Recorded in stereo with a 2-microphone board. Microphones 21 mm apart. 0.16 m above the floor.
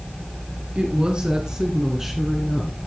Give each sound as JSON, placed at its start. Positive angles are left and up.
{"t": 0.8, "sound": "a woman speaking", "side_deg": -50, "distance_m": 2.5}